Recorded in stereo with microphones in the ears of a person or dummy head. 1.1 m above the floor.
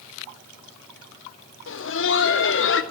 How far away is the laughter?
About 0.7 m.